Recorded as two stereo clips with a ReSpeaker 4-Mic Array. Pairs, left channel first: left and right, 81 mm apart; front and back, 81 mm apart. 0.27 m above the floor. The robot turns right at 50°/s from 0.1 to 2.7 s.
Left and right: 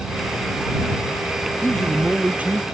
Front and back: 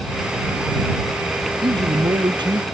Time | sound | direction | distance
1.6 | a man speaking | 160° left | ?